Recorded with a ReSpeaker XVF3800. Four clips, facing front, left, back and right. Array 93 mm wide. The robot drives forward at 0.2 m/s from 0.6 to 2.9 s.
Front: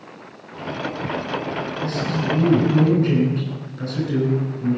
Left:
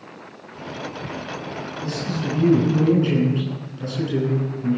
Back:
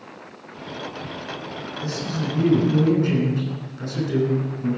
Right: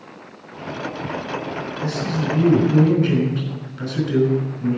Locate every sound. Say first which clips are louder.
1.8 s a man speaking: right 3 dB, front 3 dB; 100° right, 6 m